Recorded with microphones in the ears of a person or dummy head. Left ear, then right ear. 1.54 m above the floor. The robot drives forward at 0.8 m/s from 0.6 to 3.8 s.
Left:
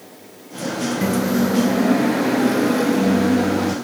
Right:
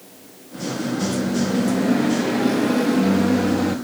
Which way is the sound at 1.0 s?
55° left (ahead or behind).